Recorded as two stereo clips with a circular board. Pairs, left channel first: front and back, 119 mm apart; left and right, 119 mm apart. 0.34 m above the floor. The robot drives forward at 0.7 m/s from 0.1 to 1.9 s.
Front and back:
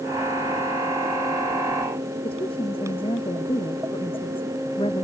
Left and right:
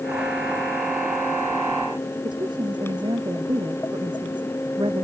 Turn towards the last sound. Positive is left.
turn(degrees=-40)